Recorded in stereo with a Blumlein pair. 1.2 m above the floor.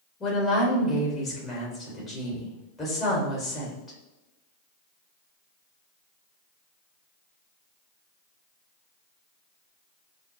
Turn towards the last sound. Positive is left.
turn(degrees=20)